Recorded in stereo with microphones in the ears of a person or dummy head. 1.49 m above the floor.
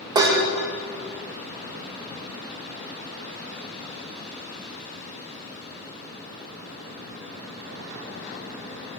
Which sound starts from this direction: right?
Dishes clattering, at 0.1 s.